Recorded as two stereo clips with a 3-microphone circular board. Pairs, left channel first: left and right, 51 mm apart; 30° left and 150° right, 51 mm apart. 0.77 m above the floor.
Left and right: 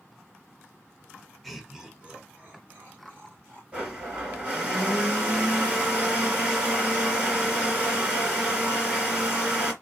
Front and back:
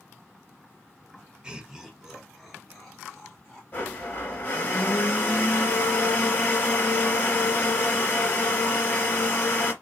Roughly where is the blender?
Ahead right.